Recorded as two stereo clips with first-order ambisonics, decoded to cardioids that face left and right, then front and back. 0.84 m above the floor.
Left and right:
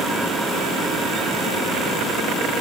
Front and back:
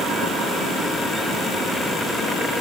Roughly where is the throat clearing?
No throat clearing in this recording.